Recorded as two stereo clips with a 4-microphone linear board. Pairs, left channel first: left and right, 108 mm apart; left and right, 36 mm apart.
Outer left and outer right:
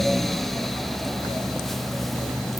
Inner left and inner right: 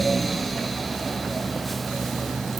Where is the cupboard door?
I don't hear a cupboard door.